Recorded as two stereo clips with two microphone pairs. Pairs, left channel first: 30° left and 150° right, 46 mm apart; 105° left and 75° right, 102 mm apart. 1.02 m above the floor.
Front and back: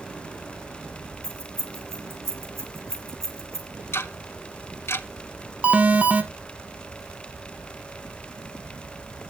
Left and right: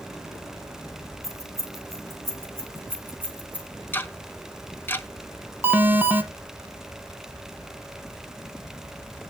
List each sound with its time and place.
1.2 s keys jangling: 135° right, 4.5 m; by 3.7 s 150° right, 3.5 m
3.9 s ticking: 40° left, 0.9 m
5.6 s an alarm: 130° right, 1.3 m